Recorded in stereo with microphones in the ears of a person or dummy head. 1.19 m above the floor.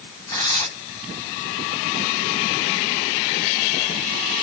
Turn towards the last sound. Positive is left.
turn(degrees=30)  # may be behind; listen again after turning